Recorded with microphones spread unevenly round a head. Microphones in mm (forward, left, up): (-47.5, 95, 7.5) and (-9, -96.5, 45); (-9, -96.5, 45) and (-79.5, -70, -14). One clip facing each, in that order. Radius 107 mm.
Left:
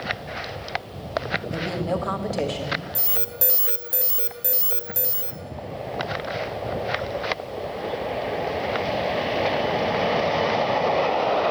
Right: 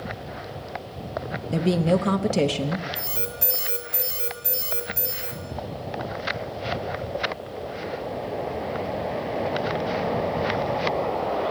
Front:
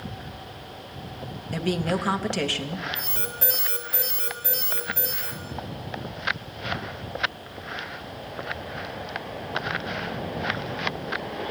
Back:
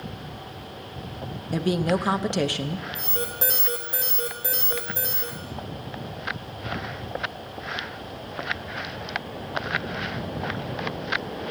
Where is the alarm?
105° left, 1.3 m.